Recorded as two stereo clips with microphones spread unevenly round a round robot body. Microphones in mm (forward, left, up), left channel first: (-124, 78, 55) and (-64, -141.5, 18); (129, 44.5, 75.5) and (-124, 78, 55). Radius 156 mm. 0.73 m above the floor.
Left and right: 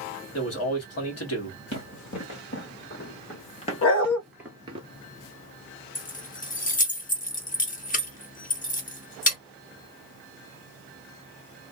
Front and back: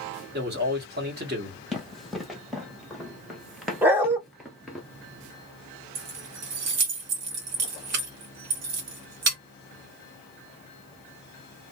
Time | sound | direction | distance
0.3 | a man speaking | 125° left | 1.6 m
1.7 | running footsteps | 80° left | 1.6 m
3.8 | a dog barking | 90° left | 0.8 m
6.0 | keys jangling | 165° left | 1.0 m